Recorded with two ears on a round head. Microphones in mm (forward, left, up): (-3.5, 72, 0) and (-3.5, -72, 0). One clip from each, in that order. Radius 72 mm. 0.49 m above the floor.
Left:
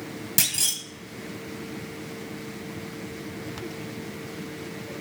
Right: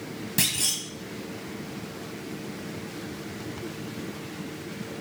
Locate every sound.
0.4 s a clunk: 35° left (ahead or behind), 1.1 m